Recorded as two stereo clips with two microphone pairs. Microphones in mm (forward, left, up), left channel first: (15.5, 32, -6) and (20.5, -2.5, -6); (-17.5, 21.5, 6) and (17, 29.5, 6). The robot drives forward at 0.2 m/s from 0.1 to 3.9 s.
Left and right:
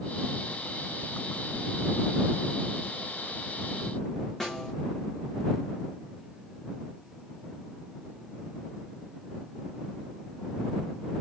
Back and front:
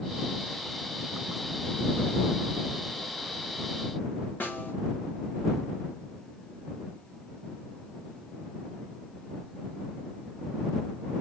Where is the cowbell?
No cowbell in this recording.